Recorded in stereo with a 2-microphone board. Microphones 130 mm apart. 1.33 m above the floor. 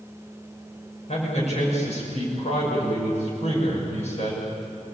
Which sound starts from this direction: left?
A man speaking, at 1.1 s.